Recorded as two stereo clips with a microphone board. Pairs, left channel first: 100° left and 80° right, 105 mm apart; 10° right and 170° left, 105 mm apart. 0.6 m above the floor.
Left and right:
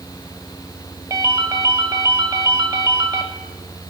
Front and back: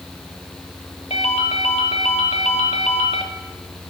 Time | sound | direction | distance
1.1 | a ringtone | 25° right | 1.0 m